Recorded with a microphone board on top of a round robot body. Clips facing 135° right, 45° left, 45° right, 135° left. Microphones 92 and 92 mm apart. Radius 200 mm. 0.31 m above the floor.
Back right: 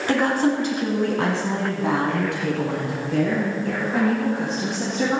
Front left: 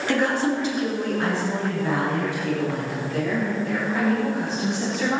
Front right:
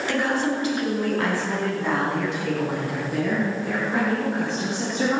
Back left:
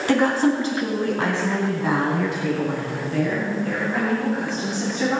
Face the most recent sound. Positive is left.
turn(degrees=-100)